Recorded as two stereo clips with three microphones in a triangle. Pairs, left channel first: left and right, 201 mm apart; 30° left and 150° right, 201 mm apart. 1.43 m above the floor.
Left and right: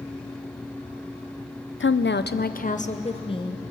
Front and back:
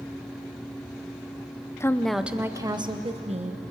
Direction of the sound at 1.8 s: 105° left.